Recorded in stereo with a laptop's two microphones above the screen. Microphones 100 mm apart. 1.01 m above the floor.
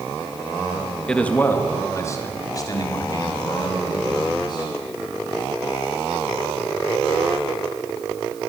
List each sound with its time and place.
1.1 s a man speaking: 10° left (ahead or behind), 1.5 m; by 4.7 s 45° left (ahead or behind), 5.5 m